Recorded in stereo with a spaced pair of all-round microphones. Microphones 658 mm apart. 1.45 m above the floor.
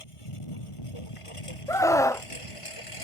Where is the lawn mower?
50° left (ahead or behind).